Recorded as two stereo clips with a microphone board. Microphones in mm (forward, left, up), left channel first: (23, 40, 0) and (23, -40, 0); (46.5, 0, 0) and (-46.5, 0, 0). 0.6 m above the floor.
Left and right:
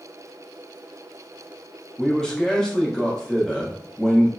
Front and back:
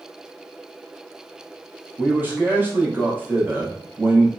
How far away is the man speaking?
About 0.7 m.